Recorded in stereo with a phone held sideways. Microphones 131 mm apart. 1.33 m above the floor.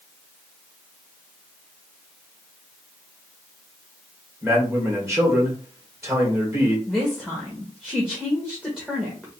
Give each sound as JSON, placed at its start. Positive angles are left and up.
{"t": 4.4, "sound": "a man speaking", "side_deg": -20, "distance_m": 2.5}
{"t": 6.9, "sound": "a woman speaking", "side_deg": -5, "distance_m": 1.6}